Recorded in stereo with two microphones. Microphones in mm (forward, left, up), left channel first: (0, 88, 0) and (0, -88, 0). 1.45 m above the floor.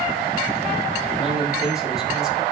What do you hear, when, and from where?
1.2 s a man speaking: 5° right (ahead or behind), 9 m